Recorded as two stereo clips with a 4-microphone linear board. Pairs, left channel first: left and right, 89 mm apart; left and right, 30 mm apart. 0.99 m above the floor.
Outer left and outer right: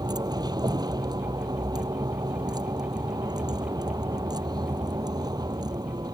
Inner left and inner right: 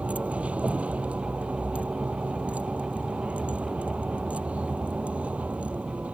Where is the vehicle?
50° right (ahead or behind).